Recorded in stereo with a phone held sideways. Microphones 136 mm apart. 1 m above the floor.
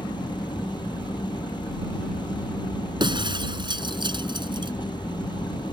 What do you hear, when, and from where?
0.0 s an engine running: 35° left (ahead or behind)
3.0 s breaking glass: 35° right (ahead or behind)